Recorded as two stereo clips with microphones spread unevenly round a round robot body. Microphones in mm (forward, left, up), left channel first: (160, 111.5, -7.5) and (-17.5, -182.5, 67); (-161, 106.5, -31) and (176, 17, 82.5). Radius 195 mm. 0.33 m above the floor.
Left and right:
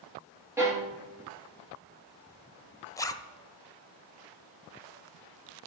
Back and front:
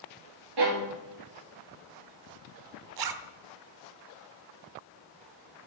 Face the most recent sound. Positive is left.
turn(degrees=-5)